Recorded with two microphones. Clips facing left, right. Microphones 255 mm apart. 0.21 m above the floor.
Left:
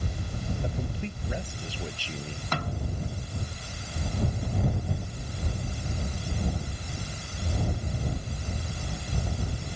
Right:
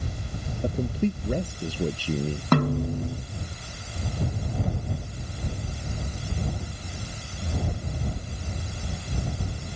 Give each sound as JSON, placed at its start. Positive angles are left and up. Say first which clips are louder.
{"t": 0.6, "sound": "a man speaking", "louder": "right 9 dB", "side_deg": -50}
{"t": 2.5, "sound": "a snare drum", "louder": "right 13 dB", "side_deg": -70}